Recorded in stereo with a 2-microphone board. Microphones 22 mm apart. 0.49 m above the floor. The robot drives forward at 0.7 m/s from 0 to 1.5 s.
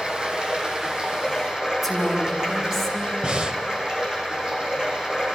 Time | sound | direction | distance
0.0 | running water | 50° right (ahead or behind) | 3 m
1.8 | a woman speaking | 10° right (ahead or behind) | 4 m
3.2 | breathing | 45° right (ahead or behind) | 1.0 m